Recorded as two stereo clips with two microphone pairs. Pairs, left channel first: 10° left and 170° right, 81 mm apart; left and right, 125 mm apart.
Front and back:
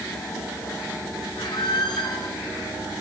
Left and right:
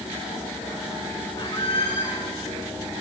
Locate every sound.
1.4 s a squeak: 40° left, 1.4 m